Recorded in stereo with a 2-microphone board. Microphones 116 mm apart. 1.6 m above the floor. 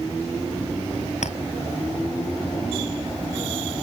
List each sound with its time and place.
1.2 s a clink: 80° left